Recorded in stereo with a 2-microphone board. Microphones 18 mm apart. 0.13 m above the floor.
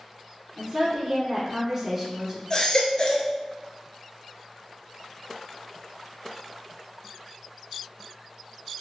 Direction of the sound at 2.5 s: 40° left (ahead or behind).